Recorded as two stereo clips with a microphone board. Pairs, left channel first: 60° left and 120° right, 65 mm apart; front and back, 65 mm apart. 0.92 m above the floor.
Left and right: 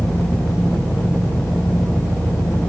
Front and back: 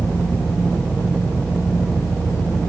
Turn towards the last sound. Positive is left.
turn(degrees=-20)